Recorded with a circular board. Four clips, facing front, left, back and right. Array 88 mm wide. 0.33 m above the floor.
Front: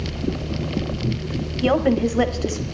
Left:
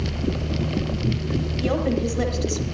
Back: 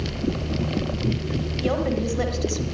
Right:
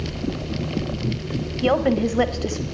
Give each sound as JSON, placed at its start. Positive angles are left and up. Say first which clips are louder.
{"t": 1.6, "sound": "a woman speaking", "louder": "right 5 dB, front 6 dB", "azimuth_deg": -50, "distance_m": 1.3}